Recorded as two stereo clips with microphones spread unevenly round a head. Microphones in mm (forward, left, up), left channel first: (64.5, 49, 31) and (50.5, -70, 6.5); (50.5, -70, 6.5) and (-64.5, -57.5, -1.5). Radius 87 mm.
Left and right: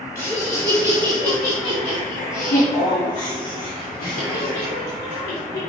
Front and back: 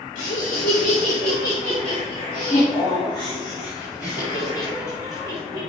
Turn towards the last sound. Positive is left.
turn(degrees=105)